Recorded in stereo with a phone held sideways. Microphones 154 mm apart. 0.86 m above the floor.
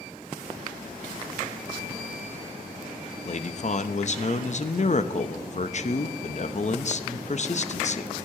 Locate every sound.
3.2 s a man speaking: 50° left (ahead or behind), 0.8 m